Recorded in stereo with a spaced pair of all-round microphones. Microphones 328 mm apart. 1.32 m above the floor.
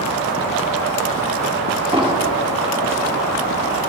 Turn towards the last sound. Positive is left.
turn(degrees=-15)  # may be behind; listen again after turning